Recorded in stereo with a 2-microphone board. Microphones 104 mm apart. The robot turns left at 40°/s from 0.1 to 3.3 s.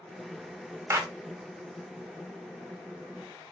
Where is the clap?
25° right (ahead or behind), 0.6 m.